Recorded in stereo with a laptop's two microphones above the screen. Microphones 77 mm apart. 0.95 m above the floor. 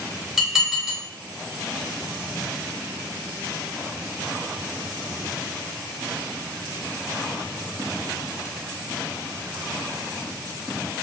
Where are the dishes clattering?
Centre (ahead or behind), 0.9 m.